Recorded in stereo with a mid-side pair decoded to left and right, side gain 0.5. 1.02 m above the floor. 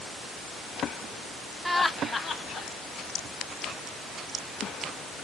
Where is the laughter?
5° right, 0.5 m; by 2.7 s 40° left, 1.2 m.